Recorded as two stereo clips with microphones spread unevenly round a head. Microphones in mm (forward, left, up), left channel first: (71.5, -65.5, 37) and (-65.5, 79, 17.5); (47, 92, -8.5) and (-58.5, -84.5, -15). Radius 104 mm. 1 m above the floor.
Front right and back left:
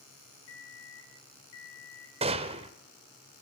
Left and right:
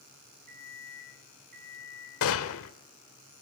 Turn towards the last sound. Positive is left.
turn(degrees=70)